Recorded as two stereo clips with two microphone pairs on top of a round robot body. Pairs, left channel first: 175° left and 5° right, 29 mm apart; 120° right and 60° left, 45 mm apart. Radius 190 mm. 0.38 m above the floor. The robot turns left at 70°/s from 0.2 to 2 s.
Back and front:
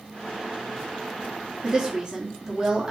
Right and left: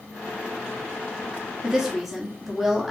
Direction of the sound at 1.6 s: Straight ahead.